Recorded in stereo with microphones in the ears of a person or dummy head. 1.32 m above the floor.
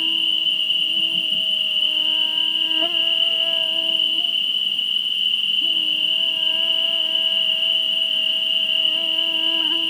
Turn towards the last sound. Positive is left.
turn(degrees=5)  # may be behind; listen again after turning